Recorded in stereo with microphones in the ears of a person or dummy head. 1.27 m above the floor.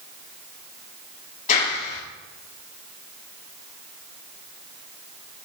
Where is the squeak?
No squeak in this recording.